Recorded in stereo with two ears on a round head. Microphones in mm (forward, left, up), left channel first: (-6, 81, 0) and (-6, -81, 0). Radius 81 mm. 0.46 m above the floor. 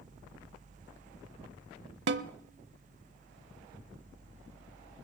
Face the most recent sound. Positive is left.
turn(degrees=-60)  # may be behind; listen again after turning